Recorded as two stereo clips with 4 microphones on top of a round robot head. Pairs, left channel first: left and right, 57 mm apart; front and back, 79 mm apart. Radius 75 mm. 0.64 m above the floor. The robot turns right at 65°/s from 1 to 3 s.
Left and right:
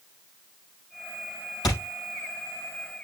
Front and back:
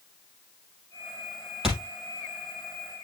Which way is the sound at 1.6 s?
100° left.